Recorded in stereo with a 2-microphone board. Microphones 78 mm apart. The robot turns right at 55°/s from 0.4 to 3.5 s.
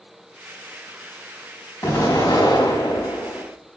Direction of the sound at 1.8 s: 30° left.